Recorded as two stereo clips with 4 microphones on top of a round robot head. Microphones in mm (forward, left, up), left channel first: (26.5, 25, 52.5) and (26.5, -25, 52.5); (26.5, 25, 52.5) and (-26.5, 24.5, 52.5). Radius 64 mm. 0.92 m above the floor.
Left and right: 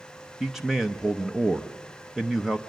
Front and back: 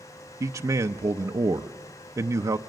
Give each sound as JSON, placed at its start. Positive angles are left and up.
{"t": 0.4, "sound": "a man speaking", "azimuth_deg": -175, "distance_m": 0.6}